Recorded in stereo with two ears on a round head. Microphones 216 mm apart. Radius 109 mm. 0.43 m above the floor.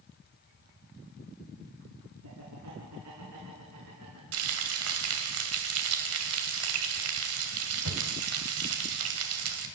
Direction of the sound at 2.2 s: 75° right (ahead or behind).